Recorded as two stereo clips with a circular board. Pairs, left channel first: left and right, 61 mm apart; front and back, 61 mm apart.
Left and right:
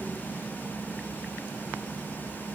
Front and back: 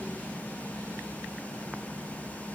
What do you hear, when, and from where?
Only background noise.